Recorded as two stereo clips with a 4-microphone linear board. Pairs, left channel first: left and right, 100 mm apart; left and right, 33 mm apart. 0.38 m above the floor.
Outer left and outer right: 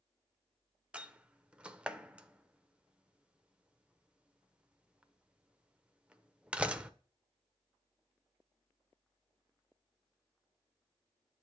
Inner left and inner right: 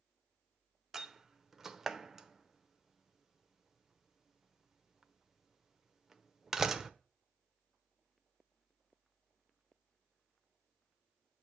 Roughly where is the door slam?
Centre.